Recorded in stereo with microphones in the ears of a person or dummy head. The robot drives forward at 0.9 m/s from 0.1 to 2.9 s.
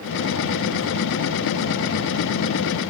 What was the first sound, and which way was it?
Only background noise.